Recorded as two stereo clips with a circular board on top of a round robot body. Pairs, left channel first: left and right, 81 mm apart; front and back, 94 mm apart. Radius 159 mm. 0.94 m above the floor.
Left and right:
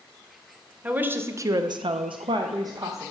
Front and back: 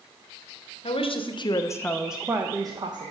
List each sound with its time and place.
0.8 s a woman speaking: 20° right, 0.9 m; by 3.1 s 140° right, 0.9 m